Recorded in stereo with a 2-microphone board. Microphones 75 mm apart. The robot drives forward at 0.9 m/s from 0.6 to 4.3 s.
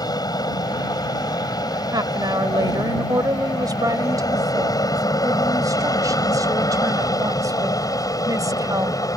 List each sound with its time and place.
0.0 s an aircraft: 60° left (ahead or behind); by 9.2 s 50° left (ahead or behind)
1.9 s a woman speaking: 65° right (ahead or behind); by 9.0 s 50° right (ahead or behind)